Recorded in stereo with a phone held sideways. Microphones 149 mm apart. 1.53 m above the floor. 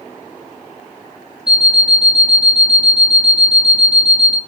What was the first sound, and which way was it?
An alarm clock, 5° right (ahead or behind).